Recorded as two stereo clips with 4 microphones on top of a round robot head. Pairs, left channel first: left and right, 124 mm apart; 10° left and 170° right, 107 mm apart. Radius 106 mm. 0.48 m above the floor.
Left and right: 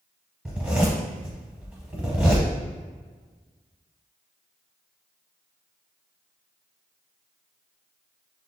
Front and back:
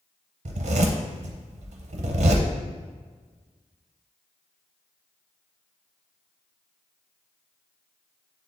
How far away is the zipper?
About 0.5 m.